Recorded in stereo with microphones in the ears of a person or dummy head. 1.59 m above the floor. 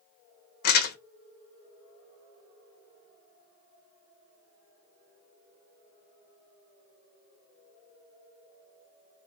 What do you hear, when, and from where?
0.6 s crumpling: 50° left (ahead or behind), 0.7 m